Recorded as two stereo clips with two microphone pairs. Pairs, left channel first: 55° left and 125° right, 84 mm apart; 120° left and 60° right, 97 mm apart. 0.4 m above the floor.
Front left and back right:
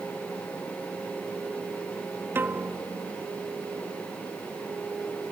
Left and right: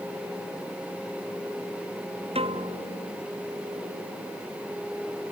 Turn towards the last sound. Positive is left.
turn(degrees=-60)